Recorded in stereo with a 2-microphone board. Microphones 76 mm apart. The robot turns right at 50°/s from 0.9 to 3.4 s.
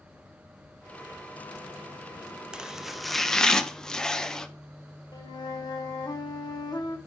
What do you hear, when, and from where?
2.5 s chopping: 10° right (ahead or behind), 0.5 m; by 4.5 s 10° left (ahead or behind), 0.5 m
5.1 s a flute: 70° left (ahead or behind), 0.9 m